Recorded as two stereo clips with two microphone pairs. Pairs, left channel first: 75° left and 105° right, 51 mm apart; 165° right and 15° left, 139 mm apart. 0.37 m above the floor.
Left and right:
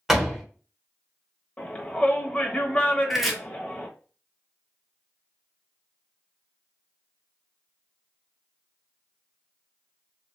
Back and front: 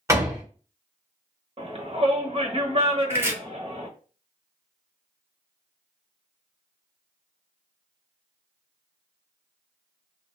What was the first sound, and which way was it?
A door slam, 20° right.